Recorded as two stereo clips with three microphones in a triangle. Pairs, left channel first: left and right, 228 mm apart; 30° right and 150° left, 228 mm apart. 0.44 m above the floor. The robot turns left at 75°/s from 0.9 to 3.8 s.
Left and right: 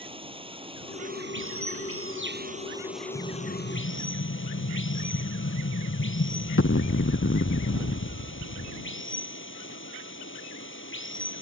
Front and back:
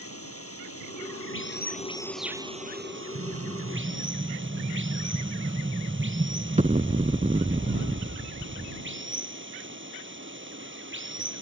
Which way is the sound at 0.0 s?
25° right.